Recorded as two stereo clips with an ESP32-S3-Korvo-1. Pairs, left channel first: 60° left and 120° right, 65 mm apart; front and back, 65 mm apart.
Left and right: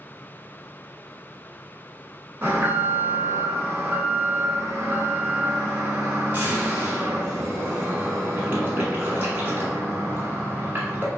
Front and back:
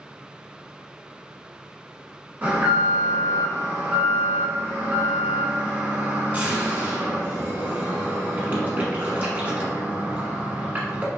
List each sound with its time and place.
2.4 s an alarm: 140° right, 0.9 m